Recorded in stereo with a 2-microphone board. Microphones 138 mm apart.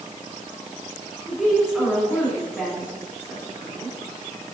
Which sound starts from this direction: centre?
A woman speaking, at 1.3 s.